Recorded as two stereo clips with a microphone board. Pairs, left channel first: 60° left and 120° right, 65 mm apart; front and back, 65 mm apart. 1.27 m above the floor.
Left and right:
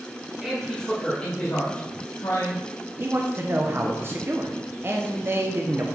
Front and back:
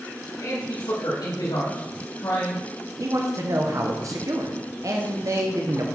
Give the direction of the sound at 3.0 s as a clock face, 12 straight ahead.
6 o'clock.